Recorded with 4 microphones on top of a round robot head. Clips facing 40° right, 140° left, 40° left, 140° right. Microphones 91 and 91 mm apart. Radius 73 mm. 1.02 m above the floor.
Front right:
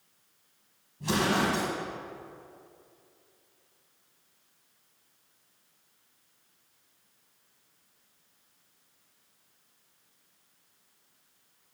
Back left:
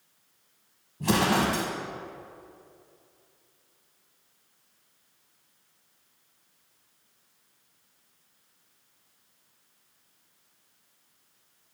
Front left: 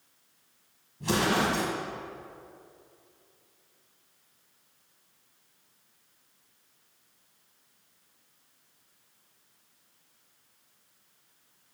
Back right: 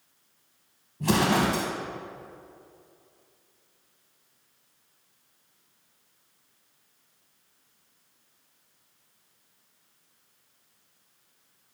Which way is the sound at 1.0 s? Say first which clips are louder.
Back left 3 dB, back right 3 dB; straight behind.